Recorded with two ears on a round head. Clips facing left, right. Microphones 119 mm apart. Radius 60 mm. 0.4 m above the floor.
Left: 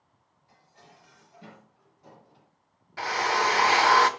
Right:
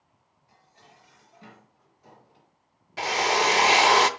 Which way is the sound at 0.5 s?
Centre (ahead or behind).